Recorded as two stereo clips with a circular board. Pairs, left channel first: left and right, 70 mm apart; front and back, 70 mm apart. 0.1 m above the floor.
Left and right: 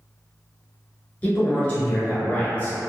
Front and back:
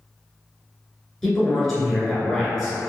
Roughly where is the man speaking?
Left.